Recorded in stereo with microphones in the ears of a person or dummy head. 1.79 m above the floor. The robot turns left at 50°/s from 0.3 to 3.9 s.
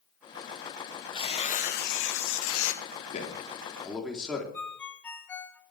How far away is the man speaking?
About 3.5 m.